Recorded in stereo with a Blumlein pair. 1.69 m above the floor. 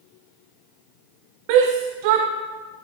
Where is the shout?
45° right, 0.8 m.